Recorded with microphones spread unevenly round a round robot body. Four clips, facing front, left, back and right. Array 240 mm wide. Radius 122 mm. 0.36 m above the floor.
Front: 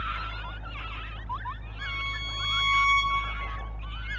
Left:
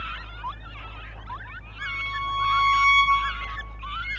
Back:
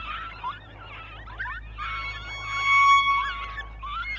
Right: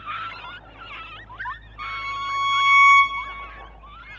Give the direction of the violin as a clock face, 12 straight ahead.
3 o'clock.